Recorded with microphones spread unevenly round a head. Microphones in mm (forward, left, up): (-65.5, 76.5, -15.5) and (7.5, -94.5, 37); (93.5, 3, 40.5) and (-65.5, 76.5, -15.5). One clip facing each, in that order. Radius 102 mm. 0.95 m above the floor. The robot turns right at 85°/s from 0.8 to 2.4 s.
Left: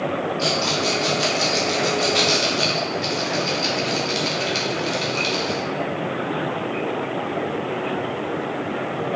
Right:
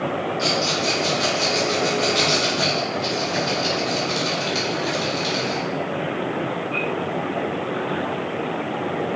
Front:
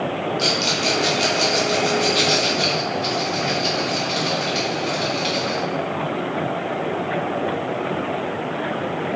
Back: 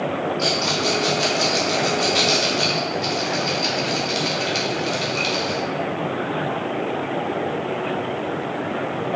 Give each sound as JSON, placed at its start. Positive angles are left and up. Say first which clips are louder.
{"t": 0.4, "sound": "a rattle", "louder": "even, even", "azimuth_deg": 30, "distance_m": 3.0}